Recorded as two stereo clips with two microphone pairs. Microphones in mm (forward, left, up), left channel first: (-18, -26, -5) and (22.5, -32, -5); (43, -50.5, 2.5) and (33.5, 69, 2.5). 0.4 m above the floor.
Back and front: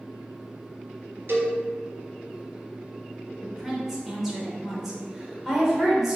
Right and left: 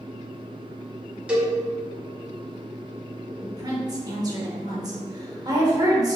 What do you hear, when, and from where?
1.3 s a cowbell: 15° left, 0.9 m
3.4 s a woman speaking: 65° left, 0.9 m